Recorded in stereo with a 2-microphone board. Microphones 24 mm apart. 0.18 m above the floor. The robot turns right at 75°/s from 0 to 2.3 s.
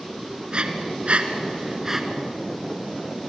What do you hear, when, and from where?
0.5 s breathing: 40° right (ahead or behind), 2 m; by 2.0 s 15° right (ahead or behind), 2 m